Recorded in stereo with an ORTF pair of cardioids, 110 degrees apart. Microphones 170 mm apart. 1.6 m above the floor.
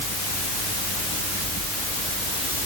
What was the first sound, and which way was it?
Only background noise.